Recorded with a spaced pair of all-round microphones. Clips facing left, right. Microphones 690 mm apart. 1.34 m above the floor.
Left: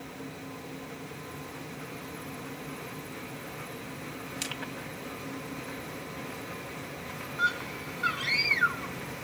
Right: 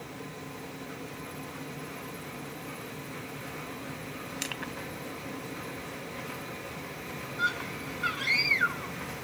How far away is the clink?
No clink in this recording.